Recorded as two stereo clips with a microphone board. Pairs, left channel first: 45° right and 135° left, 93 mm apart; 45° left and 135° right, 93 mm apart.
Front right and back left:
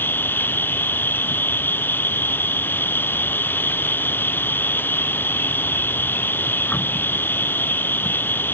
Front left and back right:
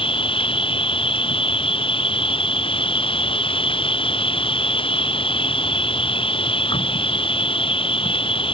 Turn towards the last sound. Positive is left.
turn(degrees=25)